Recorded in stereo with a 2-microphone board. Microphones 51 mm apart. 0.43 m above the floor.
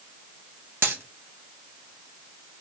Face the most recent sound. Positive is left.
turn(degrees=-60)  # may be behind; listen again after turning